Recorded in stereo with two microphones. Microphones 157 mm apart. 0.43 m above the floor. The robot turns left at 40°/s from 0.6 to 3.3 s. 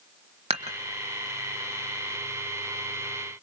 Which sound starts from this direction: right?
Dishes clattering, at 0.5 s.